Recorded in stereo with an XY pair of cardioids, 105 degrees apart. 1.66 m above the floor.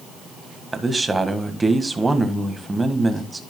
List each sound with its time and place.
0.7 s a man speaking: 20° right, 1.8 m